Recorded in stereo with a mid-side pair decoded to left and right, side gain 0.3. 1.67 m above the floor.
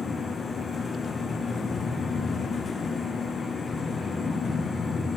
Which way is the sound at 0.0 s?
55° left.